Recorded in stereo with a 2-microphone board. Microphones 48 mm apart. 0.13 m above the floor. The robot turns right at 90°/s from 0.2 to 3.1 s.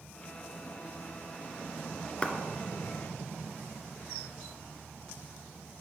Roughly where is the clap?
Left.